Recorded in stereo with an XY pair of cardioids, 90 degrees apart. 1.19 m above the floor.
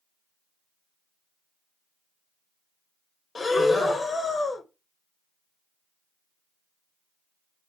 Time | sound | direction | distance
3.4 | breathing | 40° left | 0.9 m